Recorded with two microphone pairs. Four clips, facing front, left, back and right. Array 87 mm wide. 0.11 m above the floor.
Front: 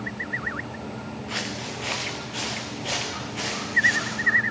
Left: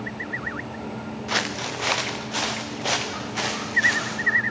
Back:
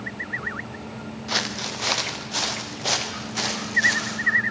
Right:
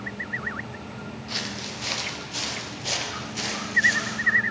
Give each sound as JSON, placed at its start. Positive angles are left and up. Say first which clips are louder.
{"t": 1.3, "sound": "footsteps", "louder": "left 10 dB, back 5 dB", "azimuth_deg": 120, "distance_m": 0.6}